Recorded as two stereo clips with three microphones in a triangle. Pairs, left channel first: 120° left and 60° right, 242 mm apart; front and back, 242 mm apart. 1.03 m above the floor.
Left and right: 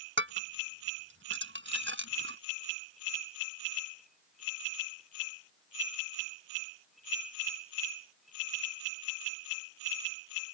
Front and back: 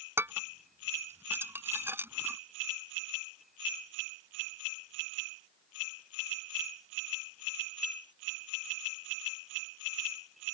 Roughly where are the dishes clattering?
Right.